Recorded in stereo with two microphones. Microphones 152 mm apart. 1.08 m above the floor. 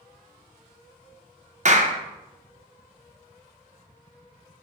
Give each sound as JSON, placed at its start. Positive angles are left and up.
{"t": 1.6, "sound": "a clap", "side_deg": -50, "distance_m": 0.7}